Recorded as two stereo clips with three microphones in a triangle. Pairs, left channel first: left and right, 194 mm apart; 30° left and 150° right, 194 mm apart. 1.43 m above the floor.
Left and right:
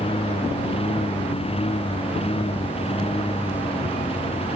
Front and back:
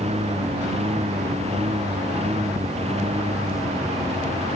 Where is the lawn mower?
150° left.